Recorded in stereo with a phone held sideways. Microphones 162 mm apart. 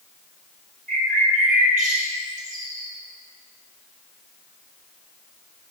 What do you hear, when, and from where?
0.9 s a bird: 65° right (ahead or behind), 4.5 m